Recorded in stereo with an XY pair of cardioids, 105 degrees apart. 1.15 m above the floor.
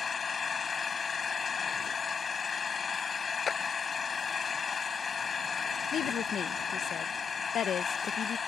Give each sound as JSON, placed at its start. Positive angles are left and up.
{"t": 0.0, "sound": "an engine running", "azimuth_deg": 35}
{"t": 3.5, "sound": "a clap", "azimuth_deg": 40}
{"t": 5.9, "sound": "a woman speaking", "azimuth_deg": 60}